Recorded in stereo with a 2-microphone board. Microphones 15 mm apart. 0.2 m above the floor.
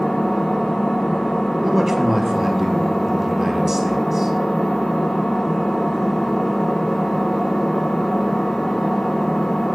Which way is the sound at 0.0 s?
55° left (ahead or behind).